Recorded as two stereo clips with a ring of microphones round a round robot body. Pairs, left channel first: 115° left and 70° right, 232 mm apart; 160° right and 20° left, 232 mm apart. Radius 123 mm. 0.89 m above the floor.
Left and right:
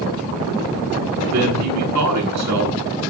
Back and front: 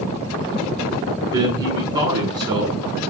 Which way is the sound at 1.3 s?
50° right.